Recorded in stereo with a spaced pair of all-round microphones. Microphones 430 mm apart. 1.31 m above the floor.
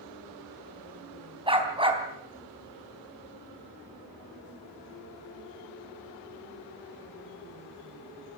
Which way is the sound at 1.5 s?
10° right (ahead or behind).